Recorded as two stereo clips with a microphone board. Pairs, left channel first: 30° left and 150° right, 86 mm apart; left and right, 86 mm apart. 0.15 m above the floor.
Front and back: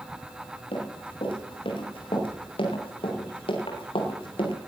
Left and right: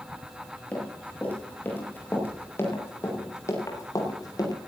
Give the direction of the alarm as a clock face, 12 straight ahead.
I don't hear an alarm.